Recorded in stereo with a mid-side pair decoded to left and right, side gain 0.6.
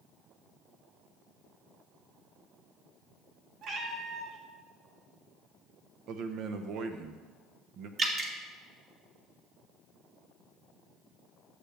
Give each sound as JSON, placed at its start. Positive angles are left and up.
{"t": 3.6, "sound": "a cat meowing", "azimuth_deg": -55, "distance_m": 1.9}
{"t": 6.1, "sound": "a man speaking", "azimuth_deg": -60, "distance_m": 1.2}
{"t": 8.0, "sound": "dripping", "azimuth_deg": -45, "distance_m": 2.0}